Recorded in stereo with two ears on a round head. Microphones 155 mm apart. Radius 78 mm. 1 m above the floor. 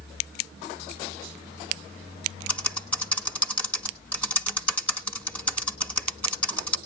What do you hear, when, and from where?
2.5 s typing on a keyboard: 10° left (ahead or behind), 1.5 m